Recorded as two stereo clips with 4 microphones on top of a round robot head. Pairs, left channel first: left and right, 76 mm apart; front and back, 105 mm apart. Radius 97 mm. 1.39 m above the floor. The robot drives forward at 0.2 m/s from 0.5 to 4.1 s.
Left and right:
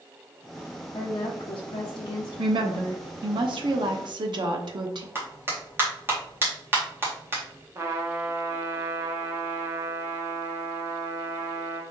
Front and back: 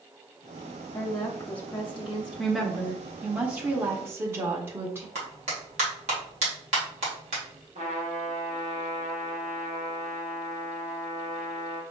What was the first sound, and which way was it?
A woman speaking, 60° left.